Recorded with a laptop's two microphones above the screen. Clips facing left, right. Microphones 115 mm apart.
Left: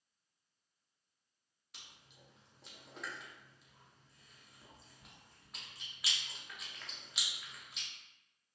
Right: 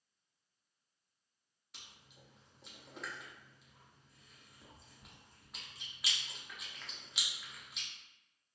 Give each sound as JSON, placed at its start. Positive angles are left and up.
{"t": 1.7, "sound": "chewing", "side_deg": 0, "distance_m": 0.6}